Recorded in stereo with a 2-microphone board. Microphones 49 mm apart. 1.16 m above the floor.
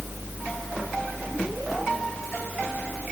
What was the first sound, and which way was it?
Only background noise.